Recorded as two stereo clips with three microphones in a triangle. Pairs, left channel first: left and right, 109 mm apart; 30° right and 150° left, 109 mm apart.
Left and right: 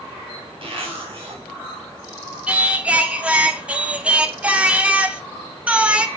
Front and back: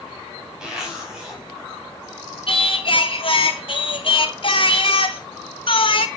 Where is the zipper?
125° right, 4 m.